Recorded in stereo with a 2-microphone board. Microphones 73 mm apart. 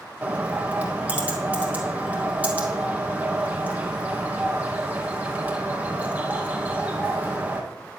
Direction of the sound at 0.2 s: 20° right (ahead or behind).